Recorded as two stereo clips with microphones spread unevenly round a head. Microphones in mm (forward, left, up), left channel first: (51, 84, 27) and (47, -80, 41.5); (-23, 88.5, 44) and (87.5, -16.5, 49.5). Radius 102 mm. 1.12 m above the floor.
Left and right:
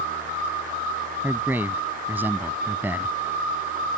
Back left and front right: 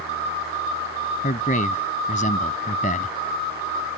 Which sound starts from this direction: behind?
A man speaking, at 1.2 s.